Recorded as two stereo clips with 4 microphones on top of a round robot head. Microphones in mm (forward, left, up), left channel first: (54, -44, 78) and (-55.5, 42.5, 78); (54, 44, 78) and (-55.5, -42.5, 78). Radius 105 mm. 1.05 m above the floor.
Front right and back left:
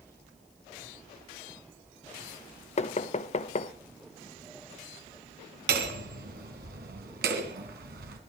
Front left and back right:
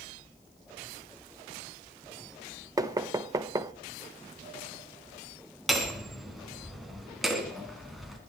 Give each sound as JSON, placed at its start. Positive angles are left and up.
{"t": 2.8, "sound": "knocking", "azimuth_deg": -75, "distance_m": 1.0}
{"t": 5.7, "sound": "hammering", "azimuth_deg": 130, "distance_m": 3.0}